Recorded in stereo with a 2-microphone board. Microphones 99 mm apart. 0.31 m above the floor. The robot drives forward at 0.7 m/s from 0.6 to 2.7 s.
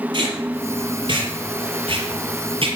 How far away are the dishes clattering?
No dishes clattering in this recording.